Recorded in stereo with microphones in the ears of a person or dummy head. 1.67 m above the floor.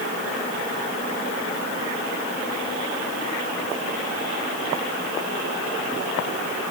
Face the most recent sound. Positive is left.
No sound to turn to.